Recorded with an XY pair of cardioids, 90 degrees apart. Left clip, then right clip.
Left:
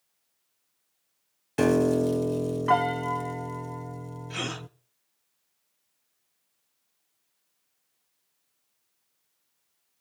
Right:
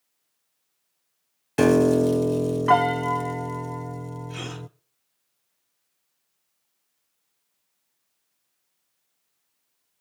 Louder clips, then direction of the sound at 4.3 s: Left 6 dB; 45° left.